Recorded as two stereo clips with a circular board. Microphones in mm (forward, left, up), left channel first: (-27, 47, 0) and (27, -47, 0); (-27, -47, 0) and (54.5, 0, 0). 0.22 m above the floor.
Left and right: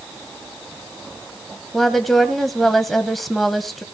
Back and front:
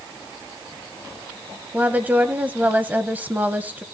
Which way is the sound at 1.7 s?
35° left.